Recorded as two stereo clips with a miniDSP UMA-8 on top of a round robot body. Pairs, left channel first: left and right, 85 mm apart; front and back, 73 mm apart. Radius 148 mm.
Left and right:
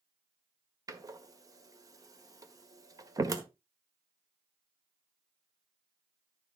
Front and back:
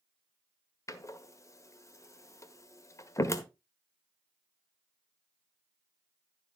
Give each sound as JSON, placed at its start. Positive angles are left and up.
{"t": 0.9, "sound": "a door slam", "azimuth_deg": -45, "distance_m": 1.6}